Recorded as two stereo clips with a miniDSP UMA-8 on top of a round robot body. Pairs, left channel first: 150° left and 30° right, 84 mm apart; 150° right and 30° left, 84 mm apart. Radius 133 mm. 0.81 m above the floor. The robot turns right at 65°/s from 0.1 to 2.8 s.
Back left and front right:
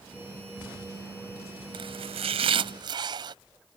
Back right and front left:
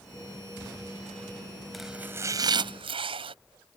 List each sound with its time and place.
1.7 s chopping: 60° right; by 3.4 s 10° left